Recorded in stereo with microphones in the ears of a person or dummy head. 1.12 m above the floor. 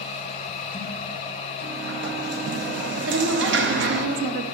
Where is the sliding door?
55° right (ahead or behind), 0.9 m.